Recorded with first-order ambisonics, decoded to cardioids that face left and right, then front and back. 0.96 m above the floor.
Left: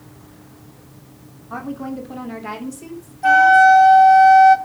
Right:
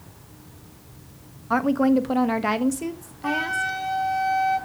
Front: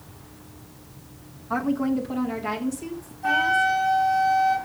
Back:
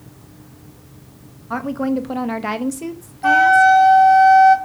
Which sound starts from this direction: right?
A woman speaking, at 1.5 s.